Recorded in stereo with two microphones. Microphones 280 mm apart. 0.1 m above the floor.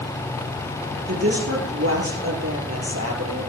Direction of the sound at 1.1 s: 55° right (ahead or behind).